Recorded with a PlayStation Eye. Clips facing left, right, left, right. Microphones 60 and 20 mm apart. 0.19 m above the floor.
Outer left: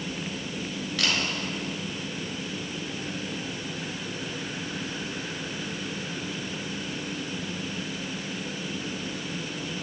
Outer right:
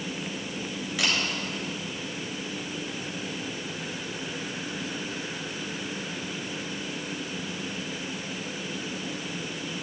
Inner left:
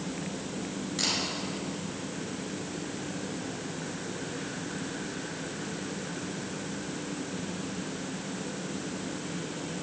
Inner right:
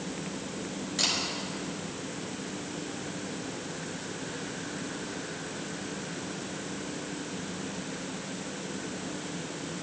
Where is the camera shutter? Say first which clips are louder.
Even, inner right 2 dB; 10° right (ahead or behind), 3.5 m.